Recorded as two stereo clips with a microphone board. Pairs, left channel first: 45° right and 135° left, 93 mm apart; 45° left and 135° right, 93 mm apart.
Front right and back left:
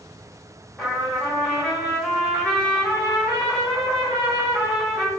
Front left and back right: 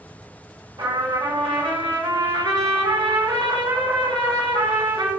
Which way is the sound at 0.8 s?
130° right.